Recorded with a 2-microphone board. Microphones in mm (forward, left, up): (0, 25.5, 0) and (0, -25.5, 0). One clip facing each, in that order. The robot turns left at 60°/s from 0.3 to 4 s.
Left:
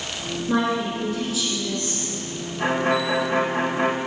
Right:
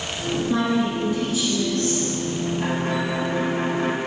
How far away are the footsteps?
I don't hear footsteps.